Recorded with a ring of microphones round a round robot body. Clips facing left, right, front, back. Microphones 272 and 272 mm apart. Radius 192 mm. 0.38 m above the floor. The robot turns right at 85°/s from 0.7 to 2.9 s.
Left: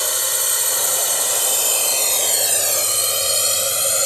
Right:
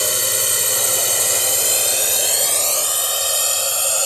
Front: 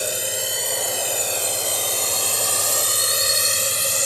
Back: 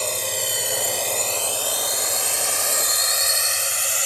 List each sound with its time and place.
0.0 s a drone: 70° right; by 4.1 s 25° left